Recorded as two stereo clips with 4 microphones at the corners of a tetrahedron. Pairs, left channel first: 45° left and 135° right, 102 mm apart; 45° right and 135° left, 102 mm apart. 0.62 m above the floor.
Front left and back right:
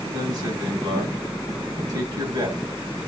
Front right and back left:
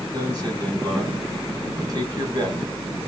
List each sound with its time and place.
0.1 s a man speaking: straight behind, 4.5 m